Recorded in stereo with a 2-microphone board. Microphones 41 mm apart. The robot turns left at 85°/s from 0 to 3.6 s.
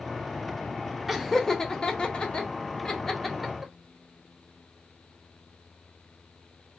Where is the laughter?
5° right (ahead or behind), 0.7 m; by 3.7 s 10° right (ahead or behind), 0.7 m.